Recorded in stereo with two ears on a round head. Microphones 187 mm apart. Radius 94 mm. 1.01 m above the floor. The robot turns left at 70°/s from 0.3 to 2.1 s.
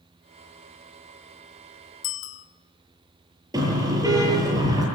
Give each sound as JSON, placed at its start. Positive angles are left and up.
{"t": 2.0, "sound": "a bicycle bell", "side_deg": 65, "distance_m": 2.0}
{"t": 3.5, "sound": "a car horn", "side_deg": -20, "distance_m": 8.5}